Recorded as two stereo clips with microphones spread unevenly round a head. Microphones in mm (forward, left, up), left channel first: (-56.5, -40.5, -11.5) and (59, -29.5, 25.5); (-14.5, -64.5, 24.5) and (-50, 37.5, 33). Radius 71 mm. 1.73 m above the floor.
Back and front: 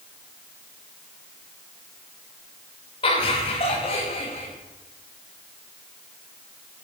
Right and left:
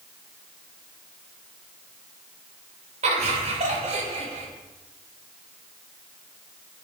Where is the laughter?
125° left, 3.5 m; by 4.5 s 130° left, 5 m.